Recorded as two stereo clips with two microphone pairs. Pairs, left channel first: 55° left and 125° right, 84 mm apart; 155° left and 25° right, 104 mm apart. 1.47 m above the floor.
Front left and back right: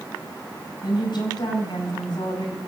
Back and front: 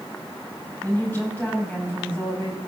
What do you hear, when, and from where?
0.8 s a woman speaking: 85° left, 6 m